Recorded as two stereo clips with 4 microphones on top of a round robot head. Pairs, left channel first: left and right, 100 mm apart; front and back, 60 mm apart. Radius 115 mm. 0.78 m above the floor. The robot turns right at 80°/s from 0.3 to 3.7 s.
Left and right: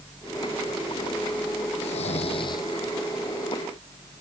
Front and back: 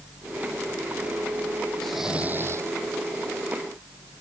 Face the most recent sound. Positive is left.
turn(degrees=-125)